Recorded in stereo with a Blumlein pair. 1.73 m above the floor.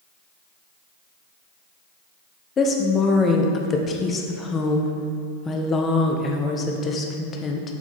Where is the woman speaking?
25° left, 0.8 m.